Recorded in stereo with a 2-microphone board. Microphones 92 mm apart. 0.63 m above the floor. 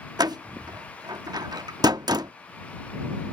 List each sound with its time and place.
0.2 s a door slam: 45° right (ahead or behind)